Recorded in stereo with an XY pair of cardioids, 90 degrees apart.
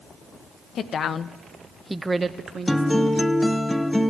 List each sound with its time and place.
0.8 s a woman speaking: 65° left, 0.9 m; by 3.2 s 65° right, 1.2 m
2.7 s a guitar: 5° left, 0.7 m